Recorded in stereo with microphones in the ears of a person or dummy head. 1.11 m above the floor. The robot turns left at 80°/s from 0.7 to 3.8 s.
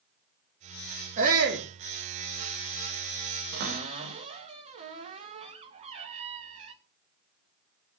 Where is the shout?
40° right, 1.7 m; by 1.7 s 80° right, 1.7 m.